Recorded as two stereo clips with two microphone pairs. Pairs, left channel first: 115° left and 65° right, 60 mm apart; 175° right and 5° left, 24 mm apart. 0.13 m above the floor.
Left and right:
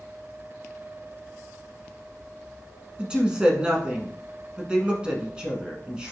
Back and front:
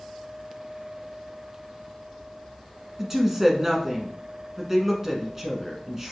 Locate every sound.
3.0 s a woman speaking: 25° right, 1.1 m